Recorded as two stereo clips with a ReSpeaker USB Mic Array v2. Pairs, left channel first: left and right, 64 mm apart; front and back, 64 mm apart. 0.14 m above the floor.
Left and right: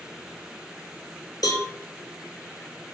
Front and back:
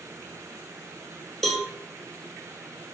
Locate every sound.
1.4 s a cowbell: 90° left, 0.5 m